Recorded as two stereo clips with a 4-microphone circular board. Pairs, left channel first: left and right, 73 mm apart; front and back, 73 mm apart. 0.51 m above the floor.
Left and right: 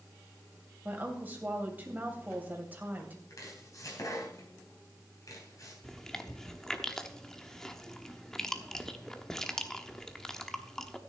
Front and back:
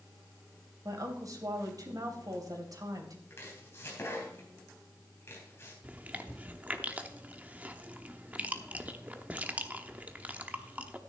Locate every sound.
0.8 s a woman speaking: 155° right, 3 m
3.3 s chopping: 55° left, 4 m
5.8 s chewing: 160° left, 0.9 m